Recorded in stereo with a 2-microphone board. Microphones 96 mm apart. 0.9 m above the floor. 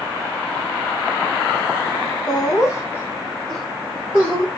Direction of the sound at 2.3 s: 45° left (ahead or behind).